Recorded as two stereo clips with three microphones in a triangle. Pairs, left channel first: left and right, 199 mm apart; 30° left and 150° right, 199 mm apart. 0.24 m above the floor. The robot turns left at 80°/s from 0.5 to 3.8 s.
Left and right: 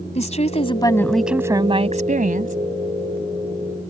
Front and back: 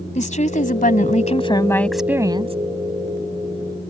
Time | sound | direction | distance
0.1 | a woman speaking | 55° left | ?